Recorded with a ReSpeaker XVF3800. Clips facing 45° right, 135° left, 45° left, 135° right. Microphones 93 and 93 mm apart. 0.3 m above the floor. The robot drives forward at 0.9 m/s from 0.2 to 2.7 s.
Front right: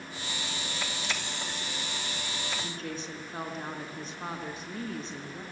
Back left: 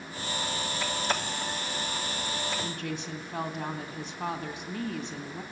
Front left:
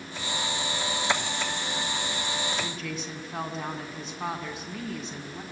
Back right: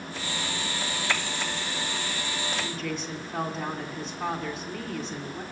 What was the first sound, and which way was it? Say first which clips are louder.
A woman speaking: back left 2 dB, back right 2 dB; 130° left.